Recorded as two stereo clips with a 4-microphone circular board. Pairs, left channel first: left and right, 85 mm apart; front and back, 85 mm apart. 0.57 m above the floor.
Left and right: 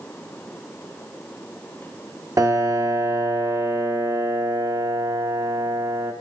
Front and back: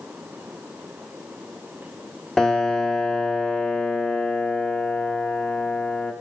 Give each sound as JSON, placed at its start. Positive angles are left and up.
{"t": 2.4, "sound": "a piano", "azimuth_deg": -80, "distance_m": 1.6}